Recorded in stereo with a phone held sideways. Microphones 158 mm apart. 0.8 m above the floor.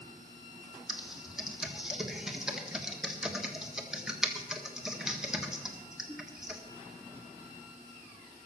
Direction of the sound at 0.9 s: 5° right (ahead or behind).